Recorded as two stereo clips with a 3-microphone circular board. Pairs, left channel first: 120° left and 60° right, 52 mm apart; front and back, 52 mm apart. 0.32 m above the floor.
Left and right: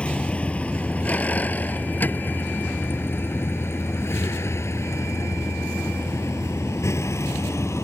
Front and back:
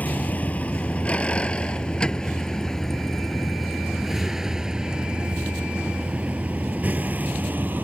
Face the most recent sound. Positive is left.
turn(degrees=130)